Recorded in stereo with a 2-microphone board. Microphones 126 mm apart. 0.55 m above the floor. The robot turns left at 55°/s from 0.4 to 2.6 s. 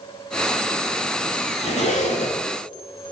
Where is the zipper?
120° left, 1.2 m; by 2.4 s 80° left, 1.2 m.